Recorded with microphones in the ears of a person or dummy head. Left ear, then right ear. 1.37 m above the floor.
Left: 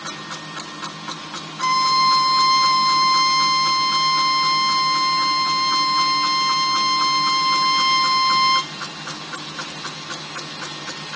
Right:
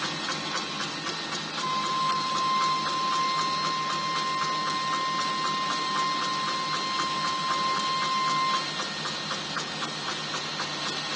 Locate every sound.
1.6 s a violin: 75° left (ahead or behind), 1.1 m